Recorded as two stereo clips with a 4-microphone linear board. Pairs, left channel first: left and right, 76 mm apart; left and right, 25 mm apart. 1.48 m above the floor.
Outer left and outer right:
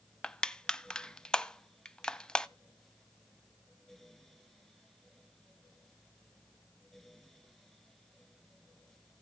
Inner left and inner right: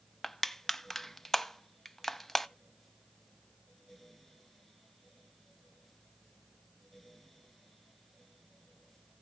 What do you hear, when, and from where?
0.2 s crushing: 10° left (ahead or behind), 0.6 m